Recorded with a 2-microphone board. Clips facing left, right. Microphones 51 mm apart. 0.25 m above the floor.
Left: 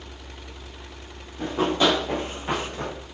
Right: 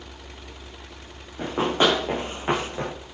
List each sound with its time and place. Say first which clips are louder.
1.4 s running footsteps: even; 40° right (ahead or behind), 7 m; by 2.9 s 30° right (ahead or behind), 7.5 m